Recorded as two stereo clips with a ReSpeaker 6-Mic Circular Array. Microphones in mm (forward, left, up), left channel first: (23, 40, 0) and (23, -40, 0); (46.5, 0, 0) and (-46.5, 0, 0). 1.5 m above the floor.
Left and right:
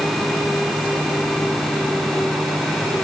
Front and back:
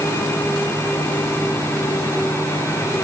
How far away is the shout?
I don't hear a shout.